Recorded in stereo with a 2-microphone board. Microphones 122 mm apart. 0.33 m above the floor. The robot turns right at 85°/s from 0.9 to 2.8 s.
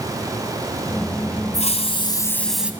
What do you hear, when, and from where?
1.5 s a hiss: 95° left, 1.7 m; by 2.7 s 170° right, 1.7 m